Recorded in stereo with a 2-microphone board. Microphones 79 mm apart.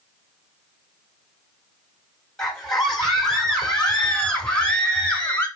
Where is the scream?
5° left (ahead or behind), 4.5 m; by 5.5 s 20° left (ahead or behind), 3 m.